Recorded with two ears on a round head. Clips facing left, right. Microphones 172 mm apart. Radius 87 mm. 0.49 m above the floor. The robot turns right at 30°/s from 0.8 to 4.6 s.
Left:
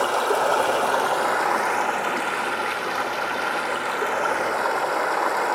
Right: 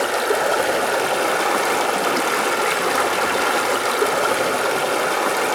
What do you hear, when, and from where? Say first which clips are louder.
0.0 s running water: right 2 dB; 155° right, 0.8 m; by 5.6 s 40° right, 0.8 m